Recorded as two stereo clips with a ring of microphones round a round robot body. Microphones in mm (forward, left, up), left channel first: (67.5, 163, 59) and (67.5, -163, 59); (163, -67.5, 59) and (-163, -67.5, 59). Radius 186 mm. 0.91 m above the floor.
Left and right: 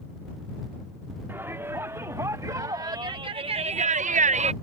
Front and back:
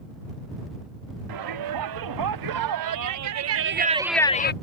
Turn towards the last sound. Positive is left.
turn(degrees=-30)